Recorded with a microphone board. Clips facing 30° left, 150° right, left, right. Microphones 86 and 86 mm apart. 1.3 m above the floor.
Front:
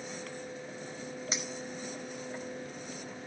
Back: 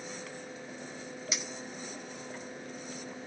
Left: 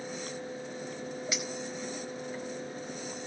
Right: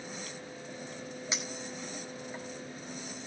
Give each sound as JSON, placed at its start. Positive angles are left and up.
{"t": 1.3, "sound": "a clink", "azimuth_deg": -25, "distance_m": 5.0}